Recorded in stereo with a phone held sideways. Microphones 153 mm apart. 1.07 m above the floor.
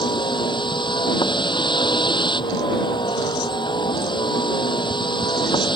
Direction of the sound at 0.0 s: 30° left (ahead or behind).